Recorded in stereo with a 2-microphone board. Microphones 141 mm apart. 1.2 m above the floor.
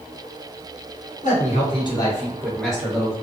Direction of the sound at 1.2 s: 60° left (ahead or behind).